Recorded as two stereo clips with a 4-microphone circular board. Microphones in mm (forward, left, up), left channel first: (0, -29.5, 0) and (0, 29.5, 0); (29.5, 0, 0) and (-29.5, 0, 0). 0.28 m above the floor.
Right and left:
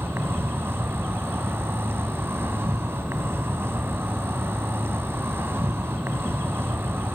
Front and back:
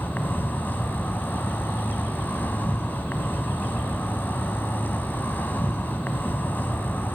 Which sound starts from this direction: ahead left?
An insect, at 0.0 s.